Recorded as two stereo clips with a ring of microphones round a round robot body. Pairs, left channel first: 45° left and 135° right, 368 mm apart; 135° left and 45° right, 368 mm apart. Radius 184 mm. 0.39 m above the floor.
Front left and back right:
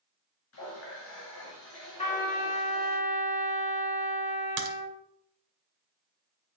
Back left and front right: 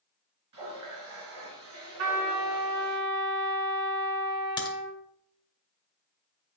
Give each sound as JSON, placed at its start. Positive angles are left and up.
{"t": 0.5, "sound": "a running tap", "azimuth_deg": -5, "distance_m": 3.5}
{"t": 2.0, "sound": "a trumpet", "azimuth_deg": -30, "distance_m": 4.5}
{"t": 4.6, "sound": "a crack", "azimuth_deg": -150, "distance_m": 1.6}